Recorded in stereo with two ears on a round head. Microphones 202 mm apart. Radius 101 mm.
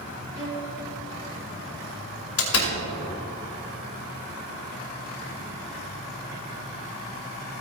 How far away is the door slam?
About 2.5 m.